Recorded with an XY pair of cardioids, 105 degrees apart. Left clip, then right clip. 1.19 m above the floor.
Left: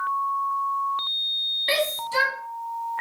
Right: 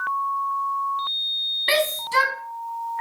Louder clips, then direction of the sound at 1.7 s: Right 3 dB; 55° right.